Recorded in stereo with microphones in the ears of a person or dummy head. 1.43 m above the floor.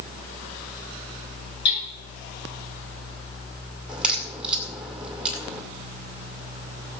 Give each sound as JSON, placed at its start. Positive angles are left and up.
{"t": 1.6, "sound": "hammering", "side_deg": 80, "distance_m": 8.5}
{"t": 3.9, "sound": "a crack", "side_deg": -5, "distance_m": 2.0}